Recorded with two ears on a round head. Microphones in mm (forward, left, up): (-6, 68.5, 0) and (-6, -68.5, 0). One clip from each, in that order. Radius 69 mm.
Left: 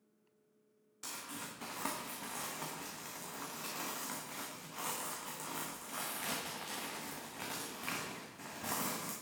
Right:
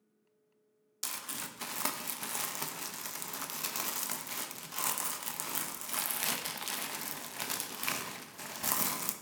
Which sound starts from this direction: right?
Crumpling, at 1.0 s.